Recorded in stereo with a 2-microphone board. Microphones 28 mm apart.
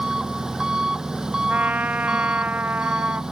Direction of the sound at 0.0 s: 20° right (ahead or behind).